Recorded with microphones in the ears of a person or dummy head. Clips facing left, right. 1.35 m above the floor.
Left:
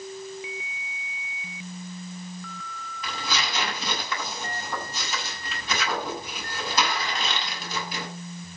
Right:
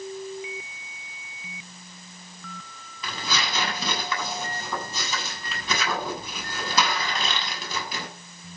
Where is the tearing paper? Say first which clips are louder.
Right 1 dB; 75° right (ahead or behind), 8 m.